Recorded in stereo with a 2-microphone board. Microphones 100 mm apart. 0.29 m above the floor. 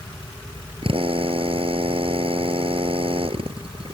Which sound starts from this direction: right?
A drill, at 0.8 s.